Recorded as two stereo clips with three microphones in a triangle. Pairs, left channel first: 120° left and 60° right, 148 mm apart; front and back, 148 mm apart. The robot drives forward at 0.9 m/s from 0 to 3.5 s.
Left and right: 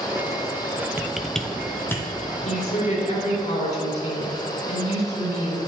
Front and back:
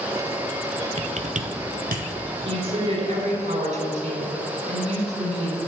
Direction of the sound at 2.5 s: 140° left.